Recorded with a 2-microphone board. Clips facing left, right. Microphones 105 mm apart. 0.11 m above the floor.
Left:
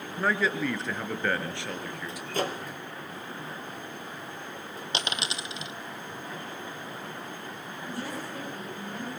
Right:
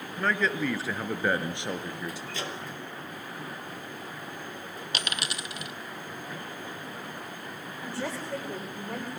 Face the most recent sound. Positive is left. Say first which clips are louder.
# right 2 dB
turn(degrees=-80)